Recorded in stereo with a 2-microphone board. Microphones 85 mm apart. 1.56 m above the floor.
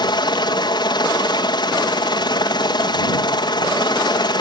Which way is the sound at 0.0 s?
60° left (ahead or behind).